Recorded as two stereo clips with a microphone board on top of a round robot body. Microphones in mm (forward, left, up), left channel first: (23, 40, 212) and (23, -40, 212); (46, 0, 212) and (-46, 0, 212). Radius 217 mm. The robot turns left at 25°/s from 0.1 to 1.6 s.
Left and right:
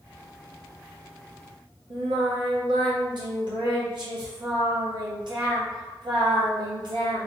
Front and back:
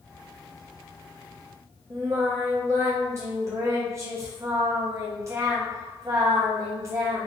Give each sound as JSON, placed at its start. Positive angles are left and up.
{"t": 1.9, "sound": "singing", "azimuth_deg": -120, "distance_m": 0.6}